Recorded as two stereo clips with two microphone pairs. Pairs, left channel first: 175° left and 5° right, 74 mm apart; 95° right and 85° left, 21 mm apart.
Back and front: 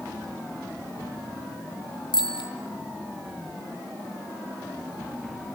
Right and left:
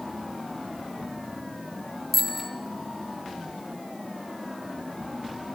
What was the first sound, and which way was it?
A bicycle bell, 175° left.